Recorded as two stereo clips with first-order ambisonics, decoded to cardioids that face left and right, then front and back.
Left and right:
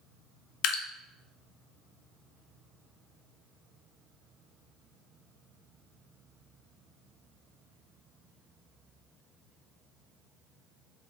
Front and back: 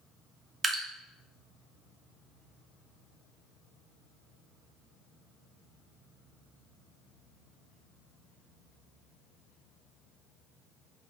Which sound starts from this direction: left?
Dripping, at 0.6 s.